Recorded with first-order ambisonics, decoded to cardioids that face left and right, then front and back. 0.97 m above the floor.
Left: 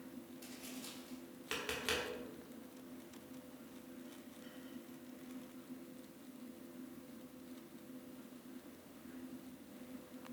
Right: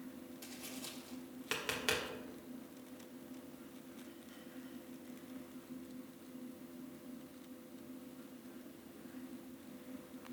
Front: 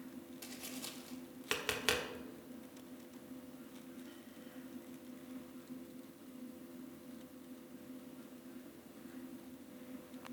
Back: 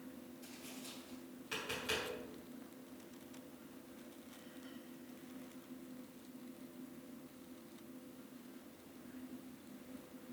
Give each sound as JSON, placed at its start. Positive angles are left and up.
{"t": 0.4, "sound": "tapping", "azimuth_deg": -10, "distance_m": 1.4}